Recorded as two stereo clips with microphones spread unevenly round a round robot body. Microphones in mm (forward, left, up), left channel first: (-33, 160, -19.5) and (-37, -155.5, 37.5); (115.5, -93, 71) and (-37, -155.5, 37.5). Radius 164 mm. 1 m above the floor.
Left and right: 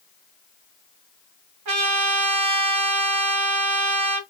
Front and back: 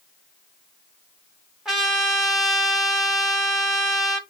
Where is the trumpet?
65° right, 1.0 m.